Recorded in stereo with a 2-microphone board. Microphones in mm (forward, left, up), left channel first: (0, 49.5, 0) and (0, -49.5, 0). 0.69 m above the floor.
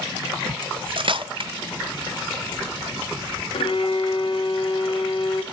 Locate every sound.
0.6 s cutlery clinking: 60° right (ahead or behind), 0.5 m
3.5 s a violin: 65° left (ahead or behind), 0.8 m